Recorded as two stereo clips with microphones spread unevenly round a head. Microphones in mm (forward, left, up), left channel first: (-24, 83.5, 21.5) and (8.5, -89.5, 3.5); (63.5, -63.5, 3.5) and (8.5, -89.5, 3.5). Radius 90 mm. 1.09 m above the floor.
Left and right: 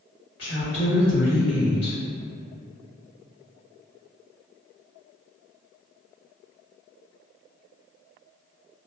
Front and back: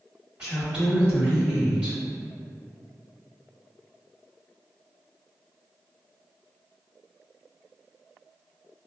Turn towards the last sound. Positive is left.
turn(degrees=130)